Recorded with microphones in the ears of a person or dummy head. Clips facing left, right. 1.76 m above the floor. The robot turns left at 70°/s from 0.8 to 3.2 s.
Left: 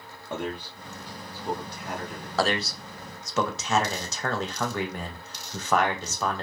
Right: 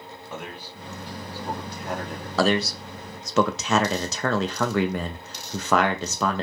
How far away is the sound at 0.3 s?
About 0.8 m.